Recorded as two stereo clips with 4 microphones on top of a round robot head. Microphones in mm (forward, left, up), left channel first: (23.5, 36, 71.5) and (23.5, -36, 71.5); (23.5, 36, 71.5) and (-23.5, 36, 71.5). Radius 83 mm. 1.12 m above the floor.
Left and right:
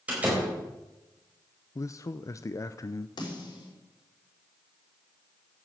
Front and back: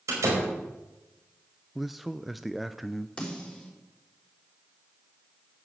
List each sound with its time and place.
0.1 s a door slam: 165° right, 4.5 m
1.8 s a man speaking: 95° left, 0.6 m
3.2 s a snare drum: 70° left, 4.5 m